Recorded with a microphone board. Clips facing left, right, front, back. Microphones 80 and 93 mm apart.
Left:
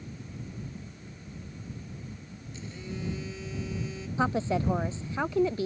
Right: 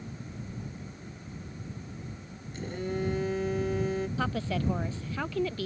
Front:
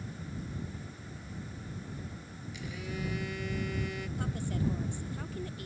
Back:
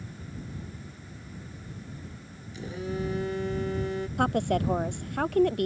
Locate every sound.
2.5 s a phone buzzing: 125° right
4.2 s a woman speaking: 160° left